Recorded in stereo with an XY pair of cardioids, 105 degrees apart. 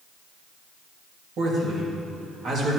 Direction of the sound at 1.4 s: 55° right.